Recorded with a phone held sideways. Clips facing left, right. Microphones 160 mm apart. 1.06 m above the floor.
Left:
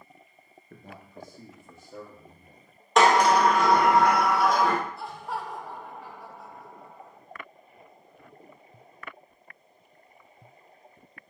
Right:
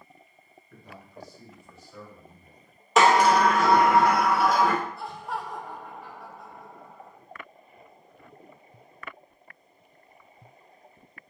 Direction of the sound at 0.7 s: 50° left (ahead or behind).